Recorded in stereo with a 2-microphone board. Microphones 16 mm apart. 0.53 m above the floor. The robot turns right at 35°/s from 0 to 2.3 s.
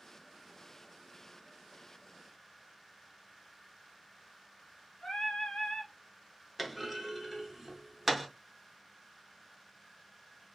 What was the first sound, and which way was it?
Singing, 80° left.